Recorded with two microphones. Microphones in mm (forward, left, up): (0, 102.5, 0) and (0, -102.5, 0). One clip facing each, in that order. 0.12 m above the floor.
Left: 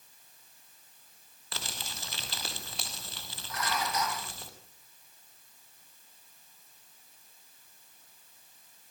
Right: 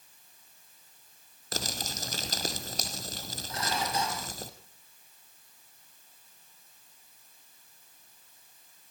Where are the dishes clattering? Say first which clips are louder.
Right 1 dB; 25° right (ahead or behind), 3 m.